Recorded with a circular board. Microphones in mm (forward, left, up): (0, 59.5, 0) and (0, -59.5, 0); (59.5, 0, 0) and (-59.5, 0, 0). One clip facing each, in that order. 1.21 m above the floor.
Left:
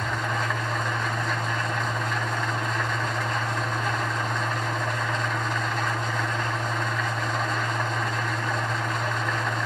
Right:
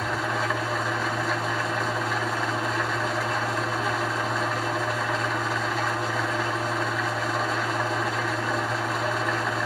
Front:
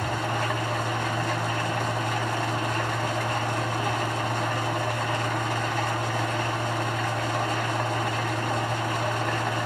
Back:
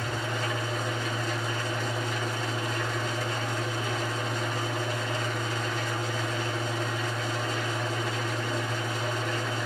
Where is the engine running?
5° right, 2 m.